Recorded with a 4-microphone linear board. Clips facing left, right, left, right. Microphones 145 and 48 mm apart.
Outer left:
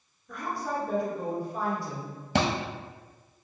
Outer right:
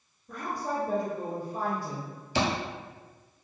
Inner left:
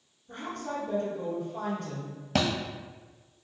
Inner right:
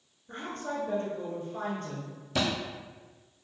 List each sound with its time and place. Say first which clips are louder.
0.3 s a woman speaking: even, even; 35° right (ahead or behind), 1.5 m
2.4 s a thud: outer left 2 dB, inner left 2 dB; 65° left (ahead or behind), 0.8 m